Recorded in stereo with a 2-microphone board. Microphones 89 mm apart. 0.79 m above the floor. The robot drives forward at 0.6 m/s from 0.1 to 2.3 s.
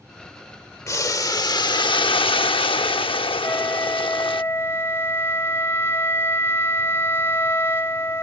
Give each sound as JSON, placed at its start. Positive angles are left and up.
{"t": 0.9, "sound": "boiling", "side_deg": 40}
{"t": 3.4, "sound": "a flute", "side_deg": 25}